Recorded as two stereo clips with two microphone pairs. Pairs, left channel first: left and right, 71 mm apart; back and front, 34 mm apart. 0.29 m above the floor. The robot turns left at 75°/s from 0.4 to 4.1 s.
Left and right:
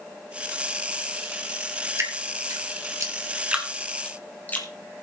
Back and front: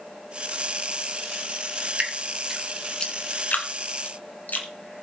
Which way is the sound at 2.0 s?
45° right.